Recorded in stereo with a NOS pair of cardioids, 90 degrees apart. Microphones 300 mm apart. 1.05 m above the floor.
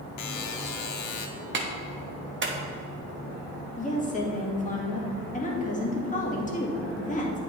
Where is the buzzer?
65° left, 0.8 m.